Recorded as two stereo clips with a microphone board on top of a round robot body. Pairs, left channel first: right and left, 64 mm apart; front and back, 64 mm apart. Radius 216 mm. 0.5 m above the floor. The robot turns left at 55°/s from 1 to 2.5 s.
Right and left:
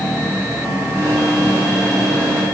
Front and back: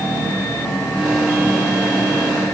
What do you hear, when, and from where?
Only background noise.